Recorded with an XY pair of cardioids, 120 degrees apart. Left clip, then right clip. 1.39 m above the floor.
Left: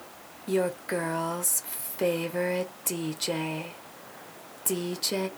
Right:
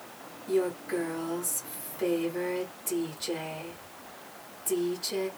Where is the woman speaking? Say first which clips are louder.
Left 1 dB; 55° left, 0.9 m.